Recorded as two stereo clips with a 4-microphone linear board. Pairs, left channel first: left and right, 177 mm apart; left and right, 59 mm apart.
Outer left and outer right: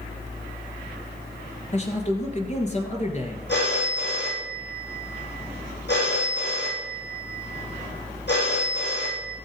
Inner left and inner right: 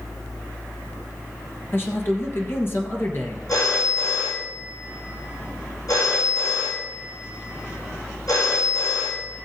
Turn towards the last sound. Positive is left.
turn(degrees=80)